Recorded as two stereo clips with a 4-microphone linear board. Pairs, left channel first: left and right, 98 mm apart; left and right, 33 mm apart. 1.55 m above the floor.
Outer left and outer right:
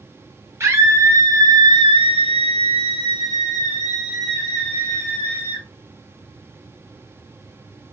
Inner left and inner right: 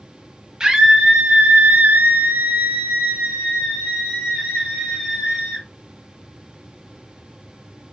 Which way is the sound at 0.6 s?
25° right (ahead or behind).